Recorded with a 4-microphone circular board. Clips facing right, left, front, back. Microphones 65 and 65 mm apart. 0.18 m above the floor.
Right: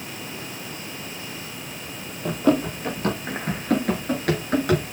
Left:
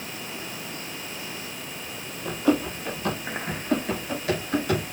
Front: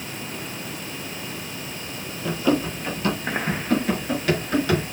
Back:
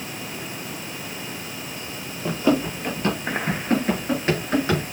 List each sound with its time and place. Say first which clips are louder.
2.2 s running footsteps: right 3 dB, back 1 dB; 115° right, 7 m; by 4.8 s 110° right, 9.5 m